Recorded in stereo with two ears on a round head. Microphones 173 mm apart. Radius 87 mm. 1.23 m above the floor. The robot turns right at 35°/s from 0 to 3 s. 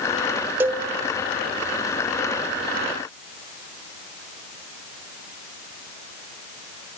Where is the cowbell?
10° right (ahead or behind), 0.8 m; by 0.8 s 15° right (ahead or behind), 0.8 m.